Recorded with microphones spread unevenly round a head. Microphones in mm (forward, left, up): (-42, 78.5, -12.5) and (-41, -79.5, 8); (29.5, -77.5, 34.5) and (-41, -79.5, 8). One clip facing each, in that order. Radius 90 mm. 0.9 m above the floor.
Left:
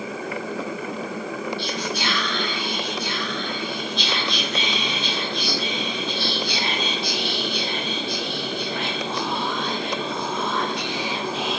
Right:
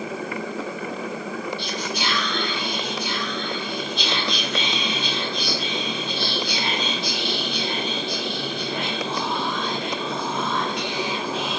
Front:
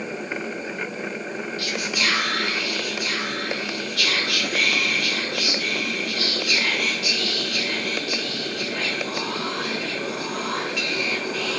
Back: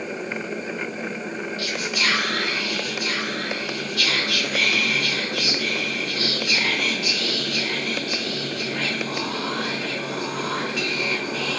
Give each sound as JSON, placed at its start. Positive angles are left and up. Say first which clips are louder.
{"t": 1.6, "sound": "whispering", "louder": "left 1 dB, even", "azimuth_deg": -105, "distance_m": 1.4}